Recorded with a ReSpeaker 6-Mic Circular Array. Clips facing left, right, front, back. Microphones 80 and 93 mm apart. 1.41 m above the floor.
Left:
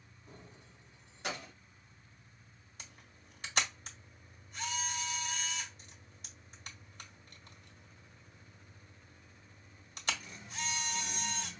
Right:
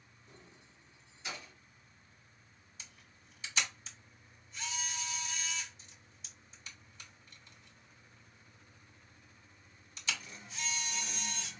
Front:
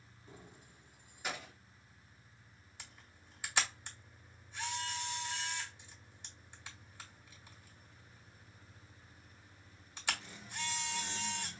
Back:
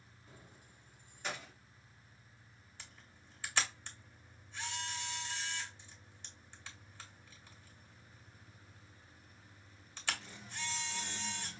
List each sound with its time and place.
0.3 s keys jangling: 60° left, 1.2 m; by 1.5 s 90° left, 1.3 m
2.8 s a camera shutter: 75° left, 1.8 m